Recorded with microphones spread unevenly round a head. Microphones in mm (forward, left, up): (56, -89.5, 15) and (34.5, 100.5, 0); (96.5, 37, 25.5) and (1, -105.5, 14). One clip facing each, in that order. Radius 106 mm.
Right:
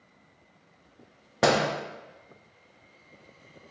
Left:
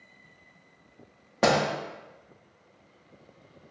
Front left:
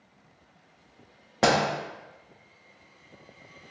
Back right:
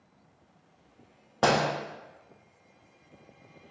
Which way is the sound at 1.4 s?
10° right.